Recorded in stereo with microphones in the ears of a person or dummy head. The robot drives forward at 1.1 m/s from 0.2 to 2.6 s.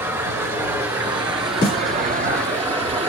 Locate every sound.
0.0 s running water: 15° right (ahead or behind), 2.5 m; by 3.1 s 30° right (ahead or behind), 1.2 m
1.6 s a snare drum: 15° left (ahead or behind), 3 m